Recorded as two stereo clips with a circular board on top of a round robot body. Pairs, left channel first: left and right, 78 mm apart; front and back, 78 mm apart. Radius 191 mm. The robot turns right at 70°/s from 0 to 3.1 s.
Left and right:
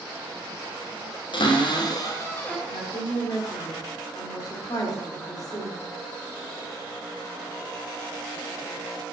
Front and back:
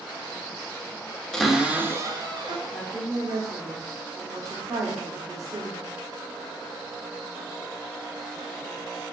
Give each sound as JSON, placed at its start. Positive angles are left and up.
{"t": 1.3, "sound": "a cupboard door", "azimuth_deg": 80, "distance_m": 1.4}
{"t": 2.7, "sound": "a woman speaking", "azimuth_deg": 105, "distance_m": 2.5}